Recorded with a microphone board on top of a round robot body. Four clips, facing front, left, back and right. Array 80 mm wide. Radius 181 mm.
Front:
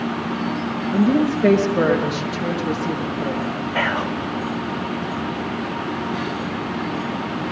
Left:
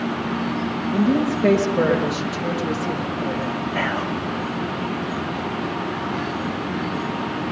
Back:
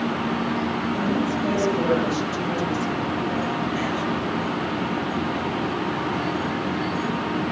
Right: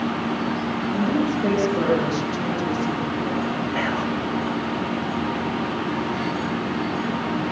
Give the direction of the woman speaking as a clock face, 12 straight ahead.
12 o'clock.